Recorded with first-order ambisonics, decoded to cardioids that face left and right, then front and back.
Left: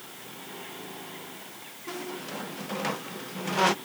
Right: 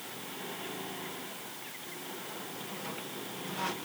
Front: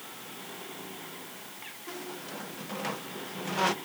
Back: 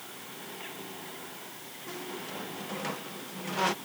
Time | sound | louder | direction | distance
1.9 | a squeak | left 9 dB, back 2 dB | 85° left | ?